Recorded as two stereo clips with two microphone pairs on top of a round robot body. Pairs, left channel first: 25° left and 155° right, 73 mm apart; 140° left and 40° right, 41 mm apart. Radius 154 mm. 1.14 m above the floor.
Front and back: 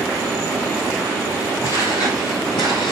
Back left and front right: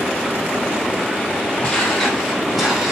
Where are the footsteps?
70° left, 2.5 m; by 2.9 s 40° left, 3.5 m.